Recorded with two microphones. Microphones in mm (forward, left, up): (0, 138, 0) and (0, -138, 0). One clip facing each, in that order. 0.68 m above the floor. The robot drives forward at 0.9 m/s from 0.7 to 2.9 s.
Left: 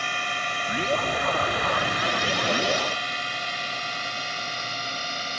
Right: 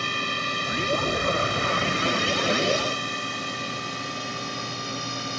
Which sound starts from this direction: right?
A drone, at 0.0 s.